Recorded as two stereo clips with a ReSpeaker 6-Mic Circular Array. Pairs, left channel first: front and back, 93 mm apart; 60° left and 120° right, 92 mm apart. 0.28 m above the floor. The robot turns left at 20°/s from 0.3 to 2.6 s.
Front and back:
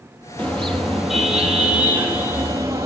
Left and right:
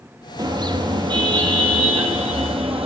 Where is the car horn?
75° right, 4 m; by 2.9 s 120° right, 4 m.